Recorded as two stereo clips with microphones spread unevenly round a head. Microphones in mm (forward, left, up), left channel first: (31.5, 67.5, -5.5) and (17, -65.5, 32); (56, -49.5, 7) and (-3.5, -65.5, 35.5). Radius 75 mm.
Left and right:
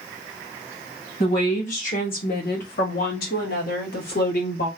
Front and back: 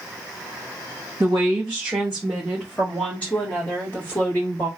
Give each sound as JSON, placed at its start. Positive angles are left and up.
{"t": 1.2, "sound": "a woman speaking", "azimuth_deg": 130, "distance_m": 1.7}